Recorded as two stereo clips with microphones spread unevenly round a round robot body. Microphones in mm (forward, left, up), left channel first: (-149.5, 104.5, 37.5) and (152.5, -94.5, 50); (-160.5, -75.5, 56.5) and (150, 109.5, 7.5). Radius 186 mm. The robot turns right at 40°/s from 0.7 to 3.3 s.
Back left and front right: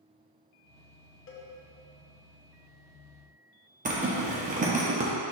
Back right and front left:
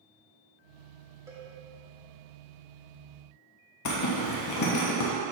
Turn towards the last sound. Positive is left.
turn(degrees=-105)